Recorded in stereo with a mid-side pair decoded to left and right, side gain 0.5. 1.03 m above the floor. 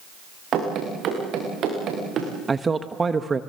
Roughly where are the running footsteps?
Ahead right.